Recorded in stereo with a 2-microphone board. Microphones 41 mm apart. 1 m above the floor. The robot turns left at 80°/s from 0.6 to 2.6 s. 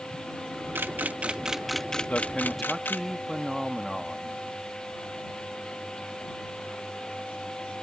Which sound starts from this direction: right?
A camera shutter, at 0.8 s.